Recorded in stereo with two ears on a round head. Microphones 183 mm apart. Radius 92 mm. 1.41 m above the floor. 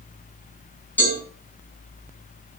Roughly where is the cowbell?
Centre.